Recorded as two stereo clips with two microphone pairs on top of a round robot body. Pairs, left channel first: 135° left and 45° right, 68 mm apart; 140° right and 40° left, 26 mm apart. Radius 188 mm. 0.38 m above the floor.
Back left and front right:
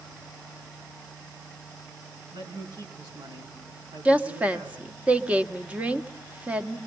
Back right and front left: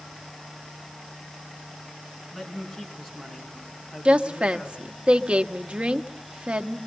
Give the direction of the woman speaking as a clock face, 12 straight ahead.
11 o'clock.